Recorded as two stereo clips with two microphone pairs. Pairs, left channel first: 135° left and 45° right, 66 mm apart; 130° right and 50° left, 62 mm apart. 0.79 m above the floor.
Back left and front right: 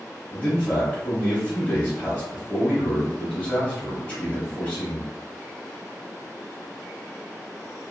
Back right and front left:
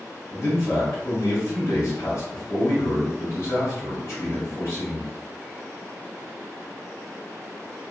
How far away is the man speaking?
About 1.6 m.